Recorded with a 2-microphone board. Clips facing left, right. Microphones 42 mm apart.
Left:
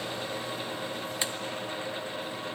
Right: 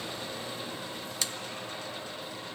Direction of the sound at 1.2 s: 20° left (ahead or behind).